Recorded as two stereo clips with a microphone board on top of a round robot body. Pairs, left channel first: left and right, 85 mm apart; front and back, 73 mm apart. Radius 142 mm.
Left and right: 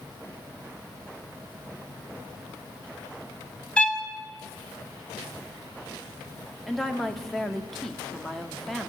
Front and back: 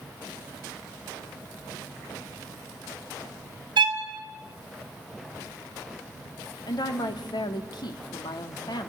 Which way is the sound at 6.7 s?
5° left.